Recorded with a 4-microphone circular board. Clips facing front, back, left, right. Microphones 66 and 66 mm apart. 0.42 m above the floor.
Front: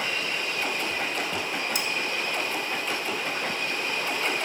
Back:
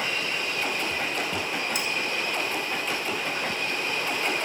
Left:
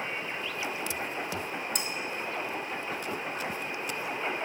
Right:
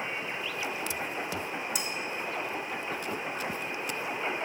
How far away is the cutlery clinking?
About 0.9 m.